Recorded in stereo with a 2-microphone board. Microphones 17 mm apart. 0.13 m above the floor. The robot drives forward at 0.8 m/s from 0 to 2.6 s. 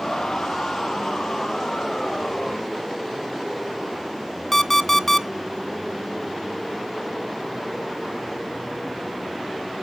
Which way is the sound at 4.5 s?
15° left (ahead or behind).